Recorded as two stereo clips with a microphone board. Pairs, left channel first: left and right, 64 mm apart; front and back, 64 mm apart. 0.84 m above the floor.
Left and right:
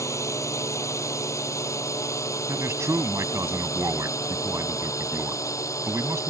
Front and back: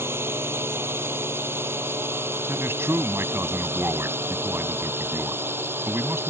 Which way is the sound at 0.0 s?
130° left.